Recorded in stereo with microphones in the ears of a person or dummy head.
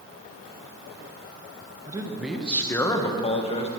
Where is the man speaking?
20° right (ahead or behind), 1.0 m; by 3.7 s 35° left (ahead or behind), 1.5 m.